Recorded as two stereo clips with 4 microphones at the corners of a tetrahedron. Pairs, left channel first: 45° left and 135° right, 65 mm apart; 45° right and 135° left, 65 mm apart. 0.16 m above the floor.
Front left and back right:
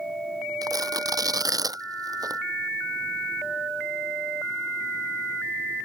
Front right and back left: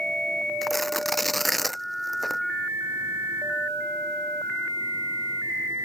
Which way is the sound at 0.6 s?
135° right.